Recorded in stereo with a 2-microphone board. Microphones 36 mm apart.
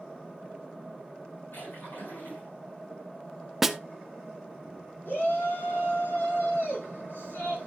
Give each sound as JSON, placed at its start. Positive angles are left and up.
{"t": 1.5, "sound": "a splash", "side_deg": 70, "distance_m": 7.5}
{"t": 3.6, "sound": "a snare drum", "side_deg": -5, "distance_m": 0.6}
{"t": 5.0, "sound": "a shout", "side_deg": 80, "distance_m": 7.0}